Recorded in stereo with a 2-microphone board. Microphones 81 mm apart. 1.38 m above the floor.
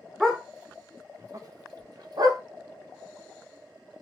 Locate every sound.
0.2 s a dog barking: 5° right (ahead or behind), 1.0 m; by 2.4 s 60° right (ahead or behind), 1.6 m